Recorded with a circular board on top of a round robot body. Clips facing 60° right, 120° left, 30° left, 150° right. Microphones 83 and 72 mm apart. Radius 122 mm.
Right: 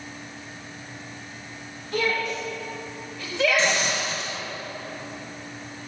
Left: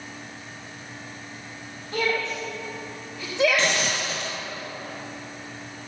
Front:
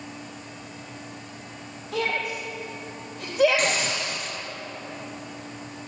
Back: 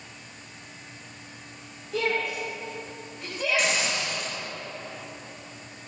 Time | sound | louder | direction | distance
1.9 | a shout | even, even | 55° left | 5 m
3.6 | a hiss | right 1 dB, front 1 dB | 80° left | 3 m